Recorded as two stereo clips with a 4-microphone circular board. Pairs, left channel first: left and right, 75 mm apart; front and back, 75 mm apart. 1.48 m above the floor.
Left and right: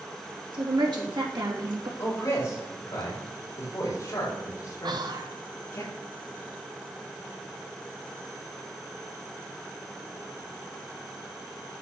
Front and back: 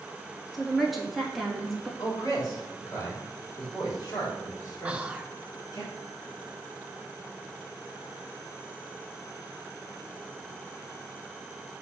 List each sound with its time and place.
0.5 s a woman speaking: 90° right, 3 m
2.0 s a man speaking: 40° left, 5 m
4.8 s whispering: 105° right, 1.2 m